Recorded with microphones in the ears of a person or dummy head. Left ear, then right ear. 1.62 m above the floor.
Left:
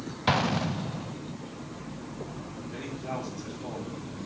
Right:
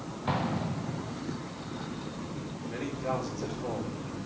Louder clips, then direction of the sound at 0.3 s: Left 6 dB; 70° left (ahead or behind).